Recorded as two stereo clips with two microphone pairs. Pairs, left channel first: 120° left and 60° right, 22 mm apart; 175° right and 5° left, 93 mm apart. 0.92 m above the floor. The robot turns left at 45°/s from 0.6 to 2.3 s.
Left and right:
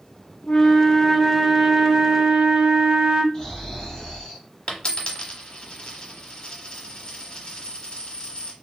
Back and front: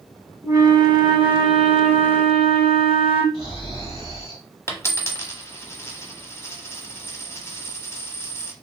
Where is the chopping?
No chopping in this recording.